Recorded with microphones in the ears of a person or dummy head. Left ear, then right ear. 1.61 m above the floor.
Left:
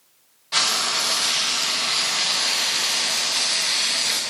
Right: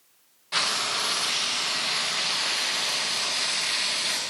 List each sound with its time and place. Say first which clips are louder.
0.5 s frying: left 4 dB; 5° right (ahead or behind), 0.6 m